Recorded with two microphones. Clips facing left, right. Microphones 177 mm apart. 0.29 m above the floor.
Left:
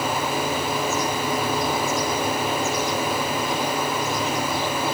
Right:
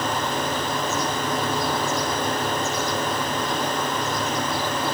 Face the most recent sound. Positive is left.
No sound to turn to.